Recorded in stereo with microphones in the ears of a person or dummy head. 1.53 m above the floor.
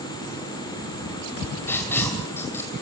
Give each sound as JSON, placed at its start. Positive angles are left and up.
{"t": 1.7, "sound": "writing", "side_deg": 10, "distance_m": 2.5}